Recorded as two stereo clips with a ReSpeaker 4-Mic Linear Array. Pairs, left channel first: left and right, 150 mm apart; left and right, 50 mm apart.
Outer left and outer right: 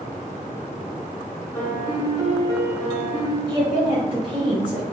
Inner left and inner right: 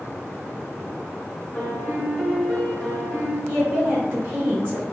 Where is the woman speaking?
35° right (ahead or behind), 1.7 m.